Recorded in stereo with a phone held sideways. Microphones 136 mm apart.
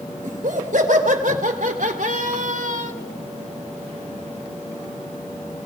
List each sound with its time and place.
0.2 s laughter: 75° right (ahead or behind), 4 m; by 2.9 s 65° right (ahead or behind), 1.8 m